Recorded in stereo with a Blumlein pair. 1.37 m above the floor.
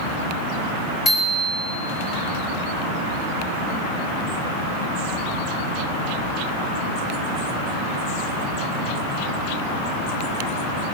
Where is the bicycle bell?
20° left, 5.5 m.